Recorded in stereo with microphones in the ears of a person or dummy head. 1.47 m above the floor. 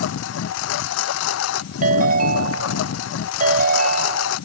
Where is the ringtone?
40° right (ahead or behind).